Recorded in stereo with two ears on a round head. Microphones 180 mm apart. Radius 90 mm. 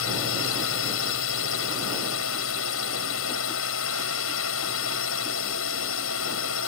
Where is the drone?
75° left (ahead or behind).